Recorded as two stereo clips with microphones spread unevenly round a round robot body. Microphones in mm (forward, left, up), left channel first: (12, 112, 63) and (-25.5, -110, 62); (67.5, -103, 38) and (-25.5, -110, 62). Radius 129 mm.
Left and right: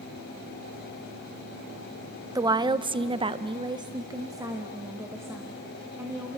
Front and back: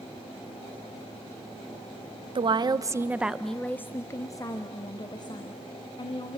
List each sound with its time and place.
2.4 s a woman speaking: 165° right, 0.8 m; by 6.4 s 20° right, 2 m